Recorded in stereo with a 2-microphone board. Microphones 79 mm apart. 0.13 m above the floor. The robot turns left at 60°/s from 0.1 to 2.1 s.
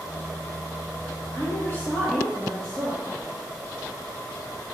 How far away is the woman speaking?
About 2.5 m.